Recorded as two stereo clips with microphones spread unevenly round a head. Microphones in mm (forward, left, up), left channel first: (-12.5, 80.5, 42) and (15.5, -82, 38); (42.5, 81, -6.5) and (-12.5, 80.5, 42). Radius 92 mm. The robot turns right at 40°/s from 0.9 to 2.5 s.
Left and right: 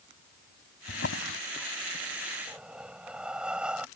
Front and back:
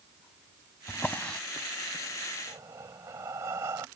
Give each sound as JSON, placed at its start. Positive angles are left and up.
{"t": 0.9, "sound": "a drawer", "azimuth_deg": 85}
{"t": 2.5, "sound": "breathing", "azimuth_deg": -165}